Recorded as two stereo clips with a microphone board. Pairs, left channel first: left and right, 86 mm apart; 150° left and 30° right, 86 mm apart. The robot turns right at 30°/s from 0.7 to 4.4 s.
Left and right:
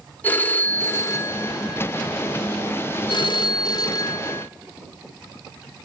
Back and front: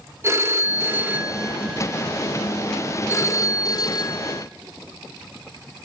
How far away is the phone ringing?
About 1.6 m.